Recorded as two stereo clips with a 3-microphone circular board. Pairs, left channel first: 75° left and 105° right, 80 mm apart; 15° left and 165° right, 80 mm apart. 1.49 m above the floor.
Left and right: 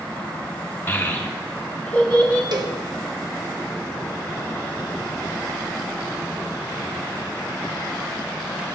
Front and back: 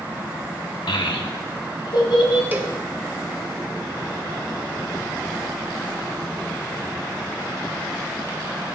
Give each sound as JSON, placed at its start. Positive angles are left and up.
{"t": 0.9, "sound": "a child speaking", "azimuth_deg": 10, "distance_m": 1.8}
{"t": 2.5, "sound": "a cowbell", "azimuth_deg": -105, "distance_m": 1.1}